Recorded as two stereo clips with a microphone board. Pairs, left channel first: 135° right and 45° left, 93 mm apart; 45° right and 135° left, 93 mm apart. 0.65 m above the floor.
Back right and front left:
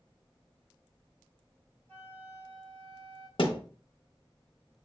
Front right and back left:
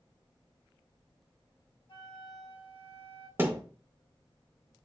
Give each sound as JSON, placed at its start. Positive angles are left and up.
{"t": 1.9, "sound": "a flute", "azimuth_deg": -65, "distance_m": 1.7}
{"t": 3.4, "sound": "a thud", "azimuth_deg": -160, "distance_m": 0.8}